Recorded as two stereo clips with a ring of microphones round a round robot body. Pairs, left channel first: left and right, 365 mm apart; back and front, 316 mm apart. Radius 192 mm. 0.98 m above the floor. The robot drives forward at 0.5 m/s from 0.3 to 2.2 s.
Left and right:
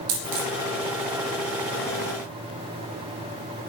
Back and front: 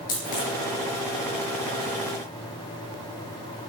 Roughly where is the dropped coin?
Right.